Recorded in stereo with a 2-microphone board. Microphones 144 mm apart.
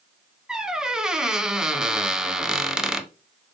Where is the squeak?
5° right (ahead or behind), 0.6 m.